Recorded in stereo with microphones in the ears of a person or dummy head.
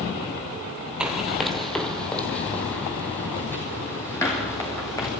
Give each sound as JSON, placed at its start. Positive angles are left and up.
{"t": 1.0, "sound": "running footsteps", "side_deg": -5, "distance_m": 2.5}